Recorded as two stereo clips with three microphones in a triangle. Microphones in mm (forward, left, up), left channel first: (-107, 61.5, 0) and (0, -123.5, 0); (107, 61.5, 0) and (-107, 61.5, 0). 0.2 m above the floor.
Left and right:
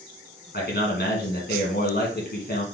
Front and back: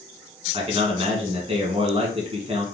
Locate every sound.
0.5 s a man speaking: 125° left, 1.7 m